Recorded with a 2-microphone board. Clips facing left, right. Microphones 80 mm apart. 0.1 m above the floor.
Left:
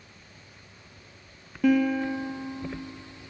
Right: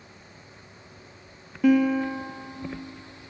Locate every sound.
1.6 s a guitar: 5° right (ahead or behind), 0.6 m